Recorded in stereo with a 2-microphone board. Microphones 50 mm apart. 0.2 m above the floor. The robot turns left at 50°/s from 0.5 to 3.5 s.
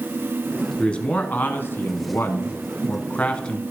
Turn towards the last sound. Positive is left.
turn(degrees=25)